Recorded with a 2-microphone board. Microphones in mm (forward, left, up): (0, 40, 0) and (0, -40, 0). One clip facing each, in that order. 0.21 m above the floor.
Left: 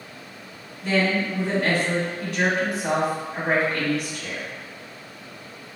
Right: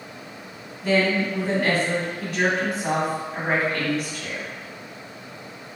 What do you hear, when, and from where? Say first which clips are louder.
0.8 s a woman speaking: right 2 dB; centre (ahead or behind), 1.7 m